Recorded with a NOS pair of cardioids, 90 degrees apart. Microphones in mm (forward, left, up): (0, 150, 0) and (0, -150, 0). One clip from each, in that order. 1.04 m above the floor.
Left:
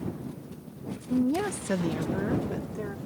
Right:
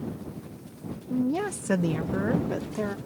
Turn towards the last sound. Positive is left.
turn(degrees=-40)